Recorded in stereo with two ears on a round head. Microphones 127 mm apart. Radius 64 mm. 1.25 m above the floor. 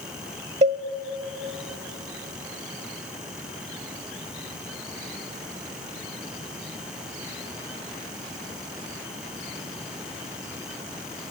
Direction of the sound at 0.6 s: 45° right (ahead or behind).